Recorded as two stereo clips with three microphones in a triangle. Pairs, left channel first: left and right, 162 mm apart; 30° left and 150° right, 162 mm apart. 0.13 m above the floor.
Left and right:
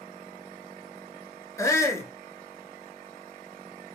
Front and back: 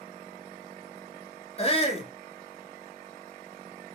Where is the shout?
30° left, 1.3 m.